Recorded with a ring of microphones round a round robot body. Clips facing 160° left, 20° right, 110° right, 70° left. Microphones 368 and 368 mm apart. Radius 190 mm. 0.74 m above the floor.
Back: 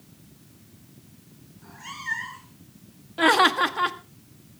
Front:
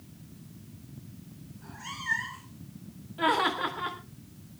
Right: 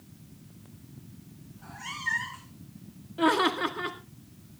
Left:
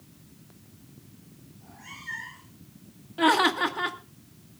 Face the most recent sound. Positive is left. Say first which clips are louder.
# back 7 dB, left 1 dB
turn(degrees=145)